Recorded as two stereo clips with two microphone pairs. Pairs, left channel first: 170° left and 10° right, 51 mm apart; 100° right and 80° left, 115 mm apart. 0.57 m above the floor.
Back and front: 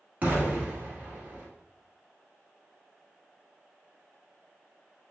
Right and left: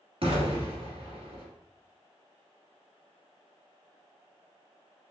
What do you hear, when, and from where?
0.2 s an explosion: 45° left, 1.7 m